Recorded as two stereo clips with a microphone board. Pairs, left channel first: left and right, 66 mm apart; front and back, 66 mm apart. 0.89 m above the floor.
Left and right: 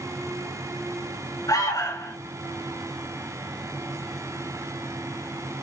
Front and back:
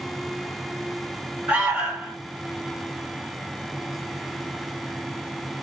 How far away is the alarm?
About 7 m.